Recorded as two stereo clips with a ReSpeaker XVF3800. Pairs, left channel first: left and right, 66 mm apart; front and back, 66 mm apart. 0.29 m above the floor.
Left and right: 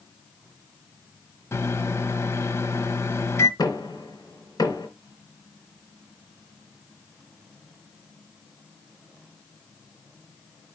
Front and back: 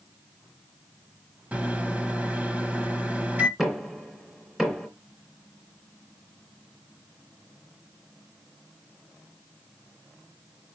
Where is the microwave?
120° left, 1.2 m.